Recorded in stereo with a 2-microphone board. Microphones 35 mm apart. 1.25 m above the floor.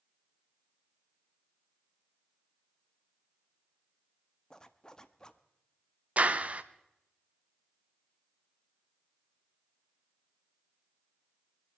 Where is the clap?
40° right (ahead or behind), 0.7 m.